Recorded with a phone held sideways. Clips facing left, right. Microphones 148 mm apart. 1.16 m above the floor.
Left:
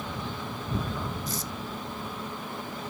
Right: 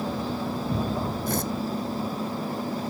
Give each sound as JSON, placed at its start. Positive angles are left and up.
{"t": 0.0, "sound": "a machine running", "side_deg": -35}
{"t": 1.3, "sound": "tearing paper", "side_deg": -60}